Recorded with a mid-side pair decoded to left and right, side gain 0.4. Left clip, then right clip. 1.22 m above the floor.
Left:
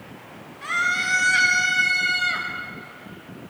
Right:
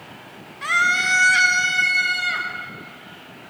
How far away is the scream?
About 1.7 m.